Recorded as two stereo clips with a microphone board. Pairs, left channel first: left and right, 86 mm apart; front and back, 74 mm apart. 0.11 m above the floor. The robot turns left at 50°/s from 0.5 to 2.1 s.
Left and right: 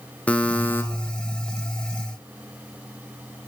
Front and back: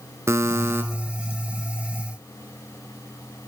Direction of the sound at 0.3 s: 155° left.